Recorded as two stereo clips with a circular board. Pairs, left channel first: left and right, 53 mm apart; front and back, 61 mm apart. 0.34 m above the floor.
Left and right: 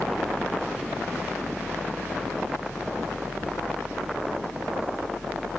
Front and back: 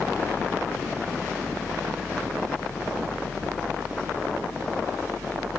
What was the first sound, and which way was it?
Only background noise.